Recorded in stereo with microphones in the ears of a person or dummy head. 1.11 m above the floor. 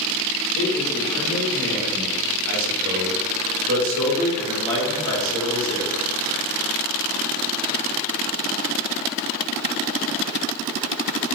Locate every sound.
0.6 s a man speaking: 60° right (ahead or behind), 1.5 m